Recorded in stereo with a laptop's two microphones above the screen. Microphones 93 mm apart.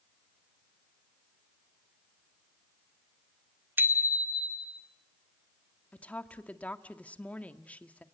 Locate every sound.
3.8 s a bicycle bell: 25° right (ahead or behind), 2.5 m; by 4.8 s 10° right (ahead or behind), 2.5 m
5.9 s a woman speaking: 15° left (ahead or behind), 1.7 m